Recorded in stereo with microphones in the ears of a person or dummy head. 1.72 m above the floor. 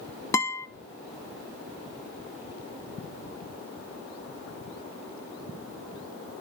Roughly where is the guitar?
Centre.